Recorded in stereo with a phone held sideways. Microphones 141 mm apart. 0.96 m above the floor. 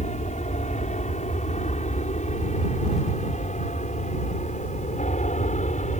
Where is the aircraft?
55° left (ahead or behind).